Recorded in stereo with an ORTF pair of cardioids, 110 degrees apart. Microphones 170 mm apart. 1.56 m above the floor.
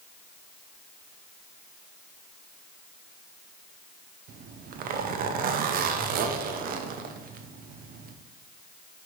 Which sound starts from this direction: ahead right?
A zipper, at 4.3 s.